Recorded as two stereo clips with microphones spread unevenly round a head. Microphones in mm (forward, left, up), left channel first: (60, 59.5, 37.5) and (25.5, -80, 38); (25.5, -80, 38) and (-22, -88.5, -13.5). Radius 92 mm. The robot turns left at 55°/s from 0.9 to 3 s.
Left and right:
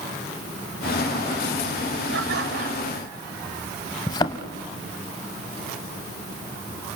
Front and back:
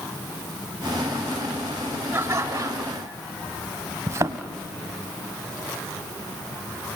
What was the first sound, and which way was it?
Laughter, 115° right.